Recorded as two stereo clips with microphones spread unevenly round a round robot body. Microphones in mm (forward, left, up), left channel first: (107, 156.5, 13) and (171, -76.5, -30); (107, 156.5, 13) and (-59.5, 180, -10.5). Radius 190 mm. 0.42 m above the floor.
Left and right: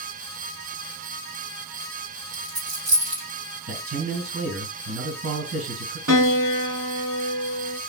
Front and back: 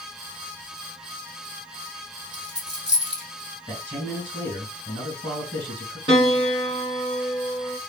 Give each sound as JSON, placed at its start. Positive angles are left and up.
{"t": 2.3, "sound": "a dropped coin", "azimuth_deg": -125, "distance_m": 3.0}
{"t": 3.7, "sound": "a man speaking", "azimuth_deg": -100, "distance_m": 3.0}
{"t": 6.1, "sound": "a piano", "azimuth_deg": -130, "distance_m": 0.7}